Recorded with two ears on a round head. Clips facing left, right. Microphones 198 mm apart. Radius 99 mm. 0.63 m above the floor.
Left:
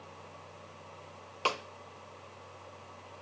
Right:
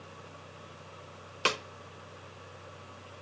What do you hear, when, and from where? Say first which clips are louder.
1.4 s a snare drum: right 2 dB; 25° right (ahead or behind), 0.5 m